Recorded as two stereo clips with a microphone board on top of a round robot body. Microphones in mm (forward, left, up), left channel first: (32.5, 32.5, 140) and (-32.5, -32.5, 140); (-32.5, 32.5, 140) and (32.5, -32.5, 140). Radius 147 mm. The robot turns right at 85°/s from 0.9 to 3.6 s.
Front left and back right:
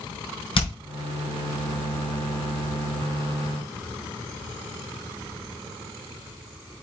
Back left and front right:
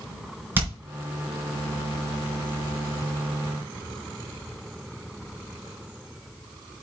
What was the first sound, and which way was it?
Hammering, 25° left.